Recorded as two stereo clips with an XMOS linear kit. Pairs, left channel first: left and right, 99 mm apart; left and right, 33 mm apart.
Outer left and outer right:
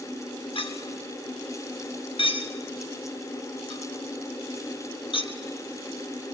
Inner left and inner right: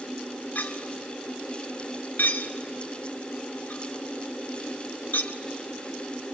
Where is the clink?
60° left (ahead or behind), 1.6 m.